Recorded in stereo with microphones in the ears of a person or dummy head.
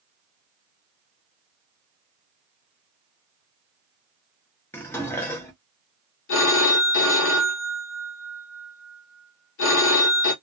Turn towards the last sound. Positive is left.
turn(degrees=60)  # may be behind; listen again after turning